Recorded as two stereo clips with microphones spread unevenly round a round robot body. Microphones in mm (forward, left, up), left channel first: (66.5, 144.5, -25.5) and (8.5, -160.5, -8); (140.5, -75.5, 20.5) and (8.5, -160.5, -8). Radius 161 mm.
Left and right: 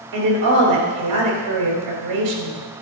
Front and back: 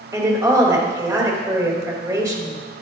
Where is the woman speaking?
80° right, 3.5 m.